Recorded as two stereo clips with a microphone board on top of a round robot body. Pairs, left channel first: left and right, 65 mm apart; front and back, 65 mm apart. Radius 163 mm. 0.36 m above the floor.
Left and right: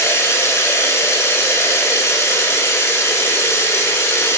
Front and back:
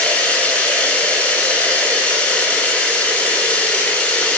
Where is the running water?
55° left, 1.0 m.